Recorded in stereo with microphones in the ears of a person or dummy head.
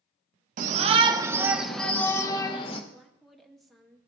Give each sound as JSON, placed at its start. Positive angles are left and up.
{"t": 0.6, "sound": "a shout", "side_deg": -50, "distance_m": 1.2}
{"t": 2.9, "sound": "a woman speaking", "side_deg": -5, "distance_m": 1.3}